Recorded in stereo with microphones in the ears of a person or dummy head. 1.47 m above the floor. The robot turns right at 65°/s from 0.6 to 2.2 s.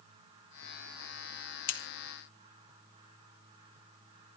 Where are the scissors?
65° left (ahead or behind), 1.7 m; by 1.8 s 75° left (ahead or behind), 1.7 m.